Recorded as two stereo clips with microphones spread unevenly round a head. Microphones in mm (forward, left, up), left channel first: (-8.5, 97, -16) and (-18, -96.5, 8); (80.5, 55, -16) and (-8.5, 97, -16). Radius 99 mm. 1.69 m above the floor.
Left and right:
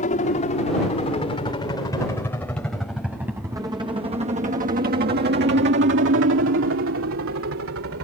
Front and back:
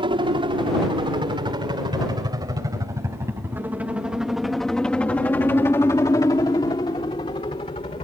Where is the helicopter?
135° left; by 8.0 s 75° right.